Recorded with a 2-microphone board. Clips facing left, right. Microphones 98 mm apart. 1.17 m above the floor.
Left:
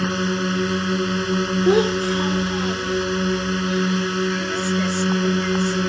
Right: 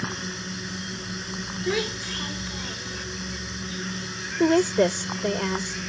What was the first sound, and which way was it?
A drone, 75° left (ahead or behind).